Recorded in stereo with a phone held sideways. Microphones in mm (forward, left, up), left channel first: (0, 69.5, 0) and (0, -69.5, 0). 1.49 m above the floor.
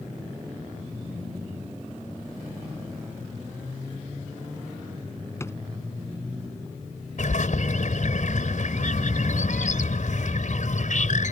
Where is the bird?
65° left (ahead or behind).